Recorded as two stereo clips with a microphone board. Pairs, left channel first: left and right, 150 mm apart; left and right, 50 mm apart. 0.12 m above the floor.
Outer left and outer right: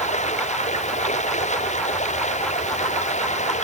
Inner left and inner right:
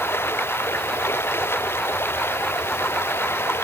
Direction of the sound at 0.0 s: 50° left (ahead or behind).